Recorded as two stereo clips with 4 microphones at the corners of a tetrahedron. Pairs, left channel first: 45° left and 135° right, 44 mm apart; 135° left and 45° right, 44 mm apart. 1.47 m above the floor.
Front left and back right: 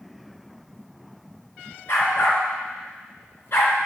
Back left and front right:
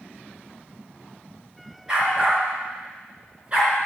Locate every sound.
1.9 s a dog barking: 25° left, 5 m; by 3.7 s 20° left, 4 m